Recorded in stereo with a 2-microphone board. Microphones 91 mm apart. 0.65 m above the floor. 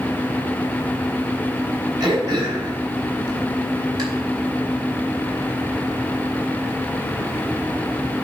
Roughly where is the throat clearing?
Right.